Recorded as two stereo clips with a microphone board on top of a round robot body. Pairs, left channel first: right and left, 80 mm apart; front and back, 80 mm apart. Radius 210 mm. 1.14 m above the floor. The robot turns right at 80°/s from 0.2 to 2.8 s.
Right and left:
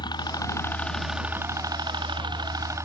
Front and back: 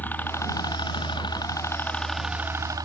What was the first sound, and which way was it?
A helicopter, 70° right.